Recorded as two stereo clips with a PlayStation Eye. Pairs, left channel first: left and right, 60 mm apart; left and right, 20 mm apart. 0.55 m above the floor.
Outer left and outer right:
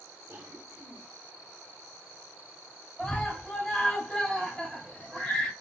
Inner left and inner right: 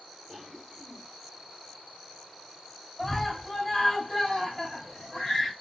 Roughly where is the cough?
Right.